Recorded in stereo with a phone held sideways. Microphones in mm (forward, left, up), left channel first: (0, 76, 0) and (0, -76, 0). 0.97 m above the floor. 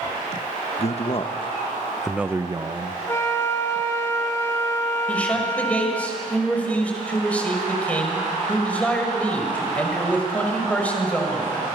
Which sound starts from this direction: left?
A man speaking, at 0.8 s.